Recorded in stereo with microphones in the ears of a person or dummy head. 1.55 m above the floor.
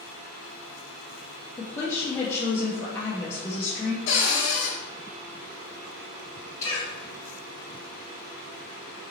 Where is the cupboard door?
80° left, 1.0 m.